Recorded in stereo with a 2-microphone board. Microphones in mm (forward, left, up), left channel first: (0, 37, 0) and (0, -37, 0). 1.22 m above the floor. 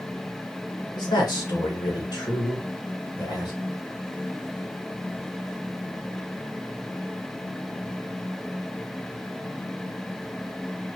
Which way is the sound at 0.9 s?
70° left (ahead or behind).